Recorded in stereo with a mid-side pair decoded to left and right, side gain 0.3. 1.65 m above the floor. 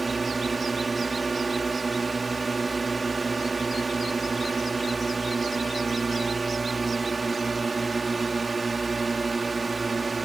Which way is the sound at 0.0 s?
35° right.